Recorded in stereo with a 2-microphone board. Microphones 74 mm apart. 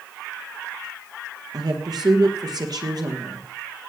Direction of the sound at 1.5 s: 65° right (ahead or behind).